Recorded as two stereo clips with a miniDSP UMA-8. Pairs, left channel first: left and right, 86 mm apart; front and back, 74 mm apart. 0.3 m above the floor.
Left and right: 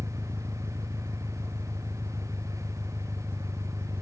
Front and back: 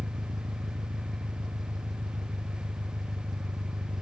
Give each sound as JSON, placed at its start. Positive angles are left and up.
{"t": 0.0, "sound": "an engine running", "azimuth_deg": -155}